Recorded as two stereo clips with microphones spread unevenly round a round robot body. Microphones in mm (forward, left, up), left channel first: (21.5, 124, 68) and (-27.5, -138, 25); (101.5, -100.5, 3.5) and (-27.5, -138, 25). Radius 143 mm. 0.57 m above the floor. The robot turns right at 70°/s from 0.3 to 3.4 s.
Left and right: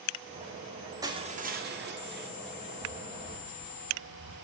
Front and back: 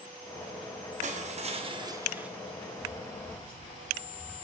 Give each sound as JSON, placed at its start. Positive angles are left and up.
{"t": 1.0, "sound": "crushing", "azimuth_deg": -165, "distance_m": 1.0}
{"t": 2.8, "sound": "footsteps", "azimuth_deg": -35, "distance_m": 4.0}